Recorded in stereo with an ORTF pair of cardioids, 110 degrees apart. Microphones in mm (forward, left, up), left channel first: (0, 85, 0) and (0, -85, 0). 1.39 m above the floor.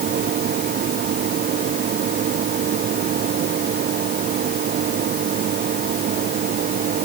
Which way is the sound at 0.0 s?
55° right.